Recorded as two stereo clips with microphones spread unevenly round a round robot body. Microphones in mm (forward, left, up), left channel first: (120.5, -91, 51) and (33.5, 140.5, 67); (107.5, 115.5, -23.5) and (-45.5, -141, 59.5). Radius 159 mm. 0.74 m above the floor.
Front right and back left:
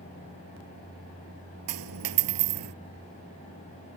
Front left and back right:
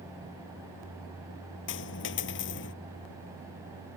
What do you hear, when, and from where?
1.7 s a dropped coin: 120° left